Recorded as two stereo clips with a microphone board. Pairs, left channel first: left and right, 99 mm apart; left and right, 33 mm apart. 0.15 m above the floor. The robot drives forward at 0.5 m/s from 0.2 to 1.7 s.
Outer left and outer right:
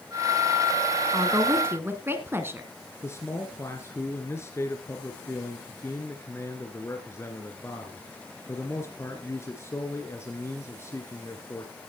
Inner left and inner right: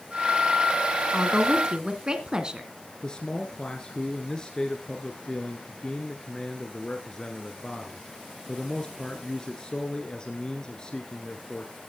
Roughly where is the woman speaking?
Right.